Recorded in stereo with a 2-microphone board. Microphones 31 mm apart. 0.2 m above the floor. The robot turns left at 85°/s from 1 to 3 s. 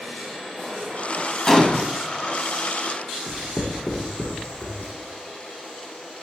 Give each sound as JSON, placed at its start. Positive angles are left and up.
{"t": 1.5, "sound": "a gunshot", "side_deg": 15, "distance_m": 0.5}
{"t": 3.3, "sound": "writing", "side_deg": 45, "distance_m": 1.1}